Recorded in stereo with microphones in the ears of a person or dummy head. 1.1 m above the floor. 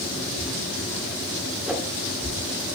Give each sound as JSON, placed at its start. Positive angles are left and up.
{"t": 1.7, "sound": "a whoosh", "side_deg": -5, "distance_m": 1.8}